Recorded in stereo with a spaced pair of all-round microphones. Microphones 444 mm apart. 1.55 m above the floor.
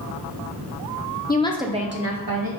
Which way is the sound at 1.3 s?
25° left (ahead or behind).